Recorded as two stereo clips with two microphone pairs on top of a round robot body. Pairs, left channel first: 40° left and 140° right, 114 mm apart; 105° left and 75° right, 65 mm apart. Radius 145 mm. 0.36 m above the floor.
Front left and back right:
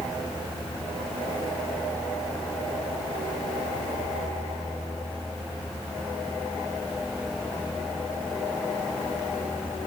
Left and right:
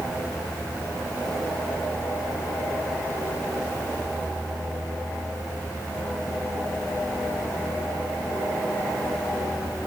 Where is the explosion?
No explosion in this recording.